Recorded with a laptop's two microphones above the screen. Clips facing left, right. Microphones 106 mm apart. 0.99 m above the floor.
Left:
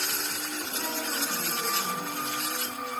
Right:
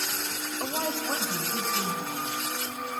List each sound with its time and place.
0.6 s a woman speaking: 50° right (ahead or behind), 3.5 m; by 2.3 s 65° right (ahead or behind), 5.5 m